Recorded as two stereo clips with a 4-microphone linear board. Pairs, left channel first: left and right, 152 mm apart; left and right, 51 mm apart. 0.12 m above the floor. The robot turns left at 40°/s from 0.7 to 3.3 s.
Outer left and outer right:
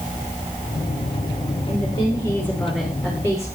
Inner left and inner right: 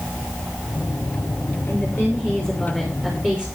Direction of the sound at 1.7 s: 45° left.